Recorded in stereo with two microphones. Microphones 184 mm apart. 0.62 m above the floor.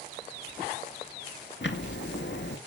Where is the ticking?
75° left (ahead or behind), 1.9 m.